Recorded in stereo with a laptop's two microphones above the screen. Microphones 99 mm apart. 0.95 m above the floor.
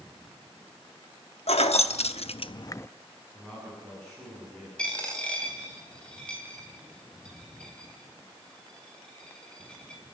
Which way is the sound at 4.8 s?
10° left (ahead or behind).